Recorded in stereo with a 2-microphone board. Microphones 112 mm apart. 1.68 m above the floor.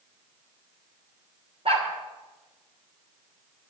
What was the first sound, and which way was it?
A dog barking, 60° right (ahead or behind).